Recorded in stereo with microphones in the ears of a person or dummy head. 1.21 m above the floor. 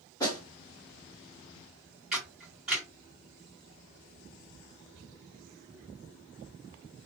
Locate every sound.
0.2 s a snare drum: 20° left (ahead or behind), 1.8 m
2.1 s a camera shutter: centre (ahead or behind), 1.9 m